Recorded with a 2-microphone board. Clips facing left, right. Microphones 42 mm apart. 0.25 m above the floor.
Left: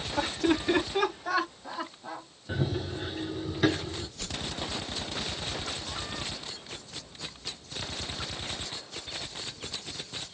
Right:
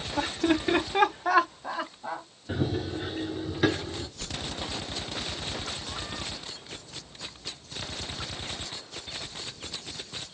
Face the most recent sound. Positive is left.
turn(degrees=10)  # may be behind; listen again after turning